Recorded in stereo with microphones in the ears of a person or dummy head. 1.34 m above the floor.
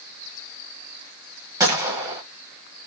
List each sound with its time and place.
1.6 s a gunshot: 10° right (ahead or behind), 1.1 m